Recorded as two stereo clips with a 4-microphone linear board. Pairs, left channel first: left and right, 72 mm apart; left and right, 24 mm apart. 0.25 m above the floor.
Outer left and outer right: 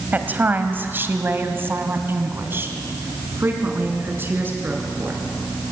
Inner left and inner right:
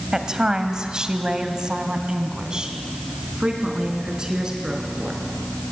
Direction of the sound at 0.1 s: 25° right (ahead or behind).